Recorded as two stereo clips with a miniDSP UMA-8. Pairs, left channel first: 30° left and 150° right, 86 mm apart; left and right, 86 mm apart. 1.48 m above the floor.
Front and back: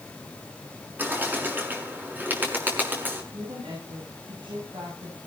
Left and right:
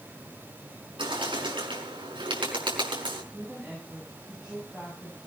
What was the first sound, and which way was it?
A bird, 80° right.